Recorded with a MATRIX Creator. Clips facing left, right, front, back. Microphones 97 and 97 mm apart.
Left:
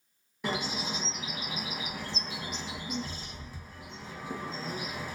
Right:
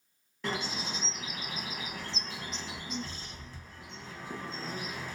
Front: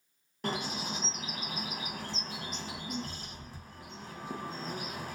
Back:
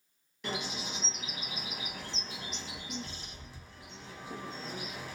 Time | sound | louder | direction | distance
0.4 | a bird | left 2 dB, front 3 dB | 15° left | 0.7 m